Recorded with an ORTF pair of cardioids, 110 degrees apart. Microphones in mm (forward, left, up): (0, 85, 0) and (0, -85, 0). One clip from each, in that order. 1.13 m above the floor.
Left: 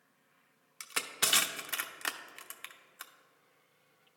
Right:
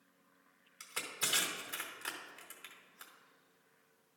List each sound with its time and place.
0.8 s crushing: 45° left, 0.8 m